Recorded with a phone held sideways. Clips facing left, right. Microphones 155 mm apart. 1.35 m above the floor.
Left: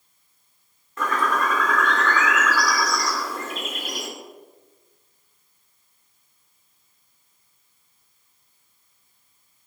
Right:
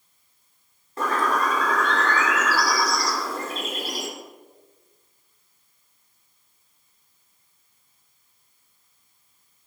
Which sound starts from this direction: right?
A bird, at 1.0 s.